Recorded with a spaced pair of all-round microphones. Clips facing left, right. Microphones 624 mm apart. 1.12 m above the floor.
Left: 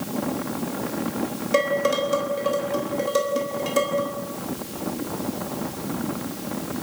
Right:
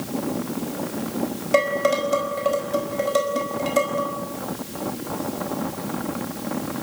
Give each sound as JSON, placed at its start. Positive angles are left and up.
{"t": 1.5, "sound": "dishes clattering", "side_deg": -10, "distance_m": 4.5}